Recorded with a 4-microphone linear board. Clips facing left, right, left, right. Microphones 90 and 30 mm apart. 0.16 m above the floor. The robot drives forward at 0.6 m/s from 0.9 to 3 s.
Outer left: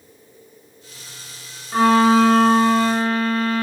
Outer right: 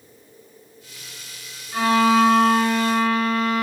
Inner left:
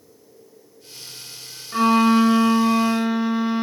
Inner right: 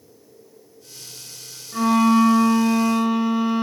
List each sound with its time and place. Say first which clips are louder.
1.7 s a violin: outer left 3 dB, inner left 1 dB; 50° left (ahead or behind), 0.8 m; by 3.6 s 30° left (ahead or behind), 1.2 m